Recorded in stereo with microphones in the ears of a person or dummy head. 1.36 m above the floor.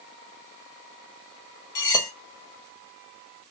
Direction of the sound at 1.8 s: 20° left (ahead or behind).